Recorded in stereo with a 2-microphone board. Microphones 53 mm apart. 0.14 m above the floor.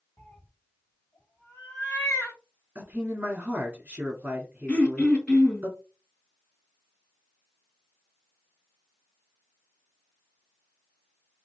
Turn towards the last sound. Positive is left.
turn(degrees=15)  # may be behind; listen again after turning